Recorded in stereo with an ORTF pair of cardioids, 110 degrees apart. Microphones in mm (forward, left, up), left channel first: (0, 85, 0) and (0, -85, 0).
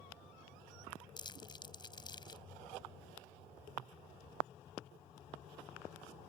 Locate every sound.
1.2 s crumpling: 30° left